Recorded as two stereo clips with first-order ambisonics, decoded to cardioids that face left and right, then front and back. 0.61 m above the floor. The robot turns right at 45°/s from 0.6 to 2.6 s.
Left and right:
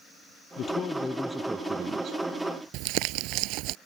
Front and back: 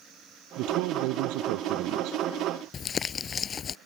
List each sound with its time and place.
0.6 s a man speaking: 145° left; by 2.2 s 140° right
2.7 s crumpling: 65° right